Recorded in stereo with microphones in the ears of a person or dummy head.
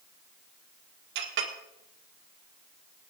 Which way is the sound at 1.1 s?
65° right (ahead or behind).